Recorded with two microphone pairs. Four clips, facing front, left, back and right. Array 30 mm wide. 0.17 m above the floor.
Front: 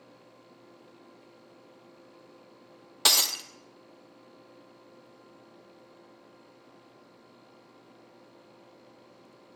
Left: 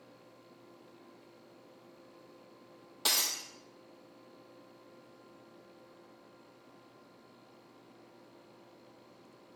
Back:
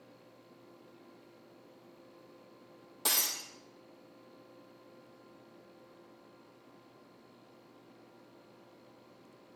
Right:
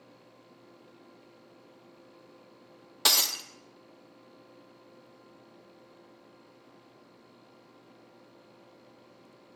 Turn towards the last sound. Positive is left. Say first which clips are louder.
# right 6 dB, front 10 dB
turn(degrees=-30)